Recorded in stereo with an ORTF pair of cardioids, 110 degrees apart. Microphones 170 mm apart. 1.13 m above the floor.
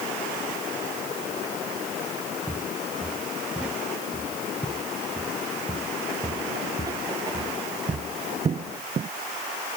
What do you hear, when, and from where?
2.5 s footsteps: 5° right; by 9.1 s 45° right